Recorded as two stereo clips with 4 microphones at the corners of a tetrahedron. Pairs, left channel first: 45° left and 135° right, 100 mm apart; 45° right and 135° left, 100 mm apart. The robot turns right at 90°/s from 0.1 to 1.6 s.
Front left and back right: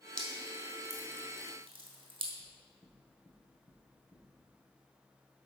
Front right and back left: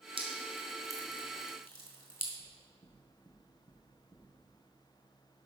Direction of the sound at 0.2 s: 125° left.